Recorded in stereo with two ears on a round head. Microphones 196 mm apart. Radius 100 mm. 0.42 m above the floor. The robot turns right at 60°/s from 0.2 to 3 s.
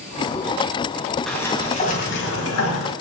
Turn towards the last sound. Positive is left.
turn(degrees=105)